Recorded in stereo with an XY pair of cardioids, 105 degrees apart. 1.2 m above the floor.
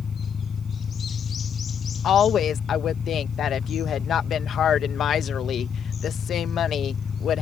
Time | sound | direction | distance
0.0 | an engine running | 45° left | ?
2.0 | a woman speaking | 65° left | ?